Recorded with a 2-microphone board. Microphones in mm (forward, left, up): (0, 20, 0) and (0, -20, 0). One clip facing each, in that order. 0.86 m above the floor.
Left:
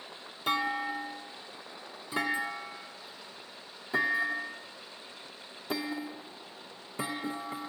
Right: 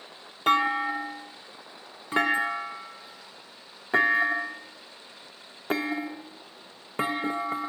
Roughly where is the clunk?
Right.